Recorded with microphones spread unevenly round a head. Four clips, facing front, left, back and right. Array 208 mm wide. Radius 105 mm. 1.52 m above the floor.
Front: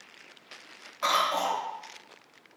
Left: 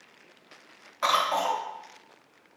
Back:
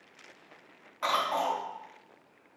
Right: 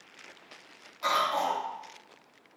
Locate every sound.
1.0 s a cough: 80° left, 1.3 m